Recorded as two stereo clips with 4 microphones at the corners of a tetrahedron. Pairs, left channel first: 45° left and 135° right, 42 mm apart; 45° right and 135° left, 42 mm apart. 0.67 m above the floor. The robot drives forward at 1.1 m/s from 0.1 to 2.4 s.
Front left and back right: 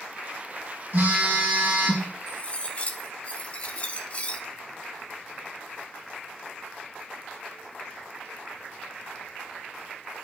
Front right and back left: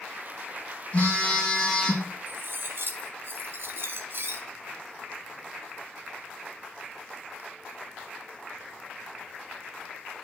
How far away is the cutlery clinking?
About 0.6 m.